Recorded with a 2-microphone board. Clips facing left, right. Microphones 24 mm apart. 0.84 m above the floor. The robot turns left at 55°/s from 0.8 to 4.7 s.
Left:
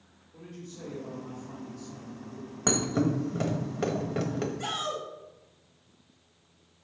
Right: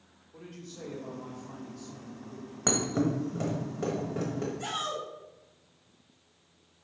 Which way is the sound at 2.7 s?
5° right (ahead or behind).